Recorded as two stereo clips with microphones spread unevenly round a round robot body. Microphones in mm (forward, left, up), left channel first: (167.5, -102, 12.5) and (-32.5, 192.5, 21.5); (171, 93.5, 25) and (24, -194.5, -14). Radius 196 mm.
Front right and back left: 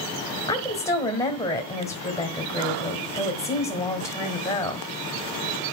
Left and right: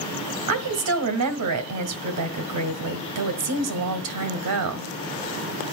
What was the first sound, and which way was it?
A woman speaking, 135° right.